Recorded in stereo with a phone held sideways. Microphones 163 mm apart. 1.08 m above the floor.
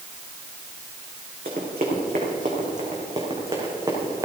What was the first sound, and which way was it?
Running footsteps, 70° right (ahead or behind).